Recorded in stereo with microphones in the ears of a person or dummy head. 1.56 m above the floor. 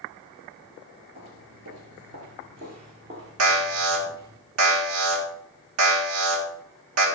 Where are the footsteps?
40° right (ahead or behind), 2.0 m; by 4.4 s 15° right (ahead or behind), 2 m.